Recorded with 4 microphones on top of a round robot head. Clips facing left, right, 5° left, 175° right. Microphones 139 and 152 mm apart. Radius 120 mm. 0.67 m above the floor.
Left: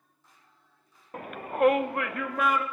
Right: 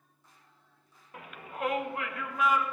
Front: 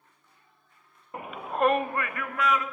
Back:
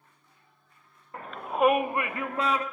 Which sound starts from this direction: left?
A shout, at 1.1 s.